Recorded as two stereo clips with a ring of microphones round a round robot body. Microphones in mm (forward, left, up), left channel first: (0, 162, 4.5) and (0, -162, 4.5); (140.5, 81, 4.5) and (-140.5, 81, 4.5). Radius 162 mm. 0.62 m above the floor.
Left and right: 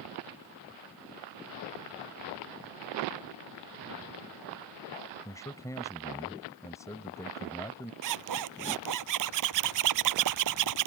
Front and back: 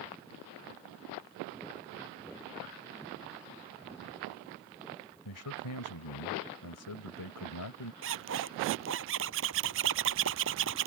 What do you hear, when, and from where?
5.2 s a man speaking: 10° left
8.0 s a zipper: 125° right